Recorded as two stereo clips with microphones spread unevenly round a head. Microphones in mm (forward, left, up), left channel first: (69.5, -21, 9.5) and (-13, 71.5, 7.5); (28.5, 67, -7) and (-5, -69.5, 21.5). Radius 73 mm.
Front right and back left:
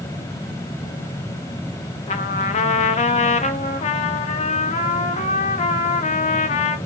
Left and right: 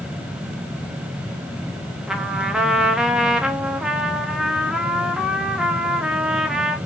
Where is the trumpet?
25° right, 1.3 m.